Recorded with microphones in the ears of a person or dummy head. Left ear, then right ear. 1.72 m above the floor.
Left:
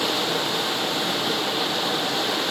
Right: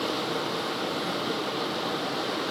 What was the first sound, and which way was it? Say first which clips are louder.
Running water: left 6 dB; 20° left (ahead or behind).